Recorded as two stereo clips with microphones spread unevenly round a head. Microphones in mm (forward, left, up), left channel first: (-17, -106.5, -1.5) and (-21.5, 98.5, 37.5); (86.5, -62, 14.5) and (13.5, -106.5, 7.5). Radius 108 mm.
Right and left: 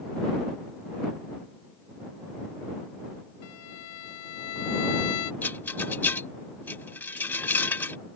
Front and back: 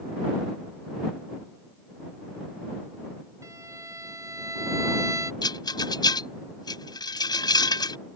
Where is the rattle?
5° right.